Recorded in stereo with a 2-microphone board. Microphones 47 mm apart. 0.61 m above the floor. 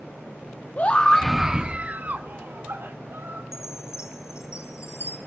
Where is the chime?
70° left (ahead or behind), 1.7 m.